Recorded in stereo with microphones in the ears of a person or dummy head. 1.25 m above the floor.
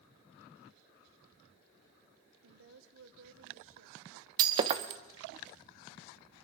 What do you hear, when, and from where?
2.4 s a woman speaking: 65° right (ahead or behind), 1.2 m
4.4 s breaking glass: 25° right (ahead or behind), 0.7 m